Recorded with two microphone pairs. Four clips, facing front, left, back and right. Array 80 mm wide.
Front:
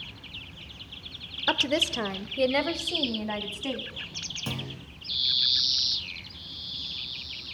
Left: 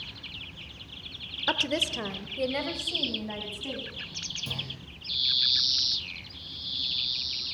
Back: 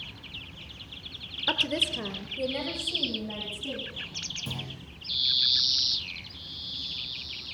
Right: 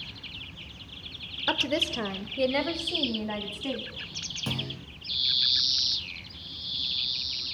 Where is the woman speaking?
5° left, 0.9 m; by 3.9 s 20° right, 2.5 m.